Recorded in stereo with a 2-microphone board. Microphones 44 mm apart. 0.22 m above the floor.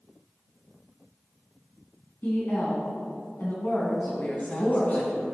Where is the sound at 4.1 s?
40° left (ahead or behind), 1.2 m.